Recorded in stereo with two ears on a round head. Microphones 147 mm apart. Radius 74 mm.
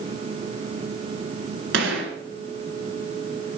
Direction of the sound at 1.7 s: 85° right.